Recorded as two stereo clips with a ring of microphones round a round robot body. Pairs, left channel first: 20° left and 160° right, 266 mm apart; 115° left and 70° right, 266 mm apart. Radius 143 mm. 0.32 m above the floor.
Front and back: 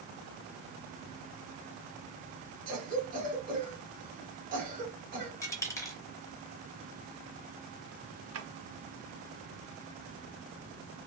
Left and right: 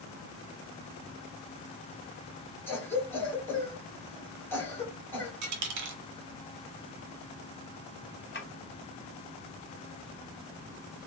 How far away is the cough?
About 1.6 m.